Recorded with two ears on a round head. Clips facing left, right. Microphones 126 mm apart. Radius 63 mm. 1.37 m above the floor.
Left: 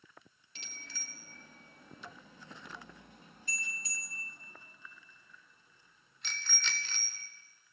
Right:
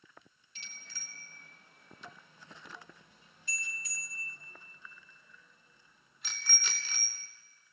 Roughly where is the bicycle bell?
Left.